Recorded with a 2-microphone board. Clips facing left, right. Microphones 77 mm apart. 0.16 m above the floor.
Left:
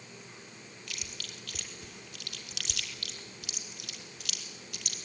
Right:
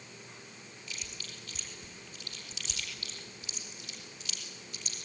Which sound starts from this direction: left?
Chewing, at 0.9 s.